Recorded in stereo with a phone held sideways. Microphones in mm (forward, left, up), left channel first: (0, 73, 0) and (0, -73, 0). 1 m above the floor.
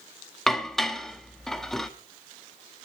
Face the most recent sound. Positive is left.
turn(degrees=5)  # may be behind; listen again after turning